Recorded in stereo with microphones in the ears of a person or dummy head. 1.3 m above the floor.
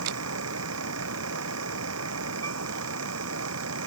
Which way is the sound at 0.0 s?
85° right.